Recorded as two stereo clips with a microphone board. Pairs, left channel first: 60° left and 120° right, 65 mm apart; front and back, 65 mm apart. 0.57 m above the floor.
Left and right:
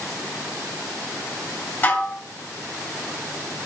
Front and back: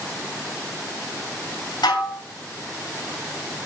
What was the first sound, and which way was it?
Dishes clattering, straight ahead.